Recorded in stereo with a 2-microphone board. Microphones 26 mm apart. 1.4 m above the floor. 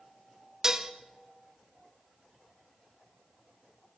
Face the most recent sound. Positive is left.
turn(degrees=-20)  # may be behind; listen again after turning